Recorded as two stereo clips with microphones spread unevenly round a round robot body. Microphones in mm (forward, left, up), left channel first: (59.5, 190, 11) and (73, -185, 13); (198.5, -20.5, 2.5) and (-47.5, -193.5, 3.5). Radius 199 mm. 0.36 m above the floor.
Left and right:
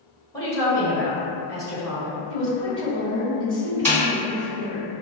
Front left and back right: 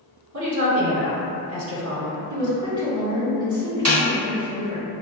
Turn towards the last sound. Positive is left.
turn(degrees=175)